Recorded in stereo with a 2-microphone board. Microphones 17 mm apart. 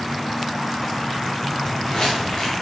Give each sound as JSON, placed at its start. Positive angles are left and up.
{"t": 1.6, "sound": "footsteps", "side_deg": 45, "distance_m": 2.5}